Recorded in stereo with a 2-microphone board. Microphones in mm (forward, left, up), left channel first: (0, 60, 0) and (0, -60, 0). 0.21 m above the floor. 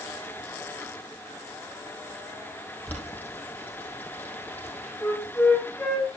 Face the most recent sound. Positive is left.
turn(degrees=10)  # may be behind; listen again after turning